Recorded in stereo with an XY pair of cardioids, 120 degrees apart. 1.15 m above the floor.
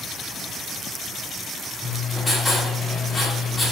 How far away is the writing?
About 3 m.